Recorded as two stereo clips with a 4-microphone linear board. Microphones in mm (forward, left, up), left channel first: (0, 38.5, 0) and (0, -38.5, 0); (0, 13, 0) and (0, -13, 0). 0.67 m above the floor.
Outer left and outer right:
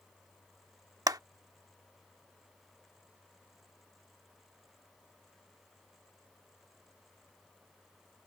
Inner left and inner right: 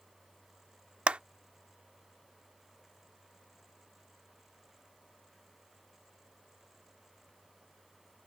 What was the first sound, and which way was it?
A clap, 55° right (ahead or behind).